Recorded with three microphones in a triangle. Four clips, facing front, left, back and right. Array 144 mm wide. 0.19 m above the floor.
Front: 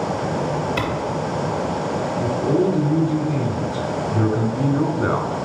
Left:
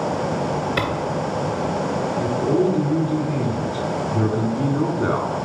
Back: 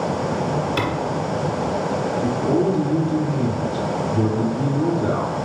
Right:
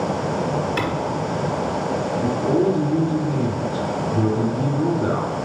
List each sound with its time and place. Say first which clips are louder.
0.8 s a clap: even, back 1 dB; 95° left, 3 m
2.2 s a man speaking: even, front 1 dB; 30° left, 1.6 m